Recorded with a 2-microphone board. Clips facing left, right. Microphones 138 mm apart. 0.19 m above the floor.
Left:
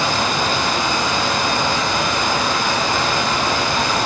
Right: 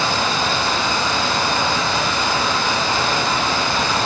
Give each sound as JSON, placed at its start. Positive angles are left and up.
{"t": 0.0, "sound": "running water", "side_deg": 15, "distance_m": 1.2}